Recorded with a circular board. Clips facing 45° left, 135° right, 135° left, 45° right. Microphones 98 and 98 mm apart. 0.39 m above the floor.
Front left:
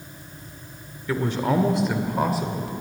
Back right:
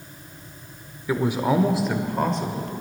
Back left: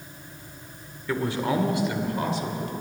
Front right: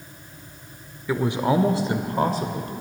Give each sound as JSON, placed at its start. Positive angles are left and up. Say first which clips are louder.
{"t": 1.1, "sound": "a man speaking", "louder": "back right 1 dB, front right 4 dB", "azimuth_deg": -100, "distance_m": 0.9}